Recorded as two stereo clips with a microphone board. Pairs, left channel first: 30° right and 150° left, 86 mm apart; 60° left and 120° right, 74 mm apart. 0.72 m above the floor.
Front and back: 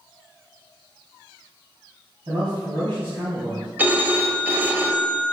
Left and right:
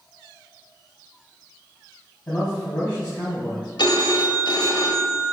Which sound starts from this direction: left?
A phone ringing, at 3.8 s.